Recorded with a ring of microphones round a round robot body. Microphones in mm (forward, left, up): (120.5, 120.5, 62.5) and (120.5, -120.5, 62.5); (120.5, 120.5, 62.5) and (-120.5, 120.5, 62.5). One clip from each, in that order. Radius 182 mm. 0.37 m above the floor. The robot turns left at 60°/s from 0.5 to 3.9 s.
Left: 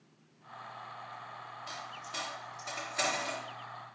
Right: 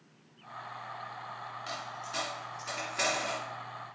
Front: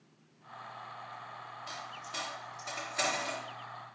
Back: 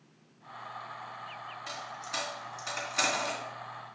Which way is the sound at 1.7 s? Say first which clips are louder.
Right 3 dB, back 4 dB; 130° right.